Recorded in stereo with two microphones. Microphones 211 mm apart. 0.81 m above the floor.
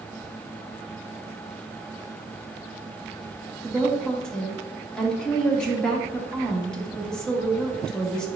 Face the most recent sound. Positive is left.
turn(degrees=5)  # may be behind; listen again after turning